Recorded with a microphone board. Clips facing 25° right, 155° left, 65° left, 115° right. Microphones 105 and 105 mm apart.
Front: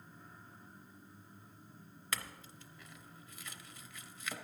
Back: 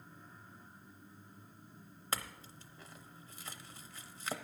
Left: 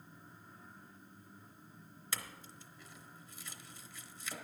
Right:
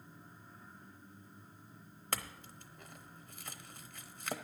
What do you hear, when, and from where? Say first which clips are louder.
2.1 s a clink: back 3 dB, right 5 dB; 145° right, 0.7 m